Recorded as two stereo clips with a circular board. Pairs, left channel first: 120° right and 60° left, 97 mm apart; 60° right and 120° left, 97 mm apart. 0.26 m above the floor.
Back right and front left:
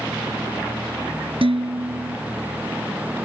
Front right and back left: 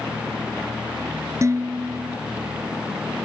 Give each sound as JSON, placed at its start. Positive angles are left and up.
{"t": 1.4, "sound": "dishes clattering", "azimuth_deg": 65}